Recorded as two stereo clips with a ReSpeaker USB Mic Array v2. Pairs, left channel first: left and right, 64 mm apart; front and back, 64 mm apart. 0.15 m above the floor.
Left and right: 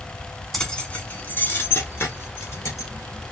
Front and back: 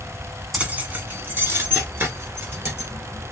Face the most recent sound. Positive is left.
turn(degrees=130)